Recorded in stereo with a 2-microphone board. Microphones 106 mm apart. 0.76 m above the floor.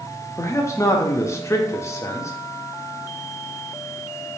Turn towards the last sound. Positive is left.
turn(degrees=25)  # may be behind; listen again after turning